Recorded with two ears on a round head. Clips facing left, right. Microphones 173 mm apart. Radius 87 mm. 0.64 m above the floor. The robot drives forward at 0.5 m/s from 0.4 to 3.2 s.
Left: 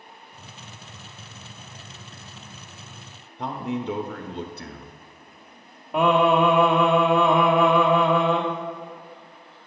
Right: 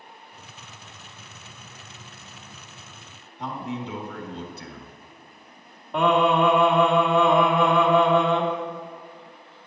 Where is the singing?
5° left (ahead or behind), 1.5 m.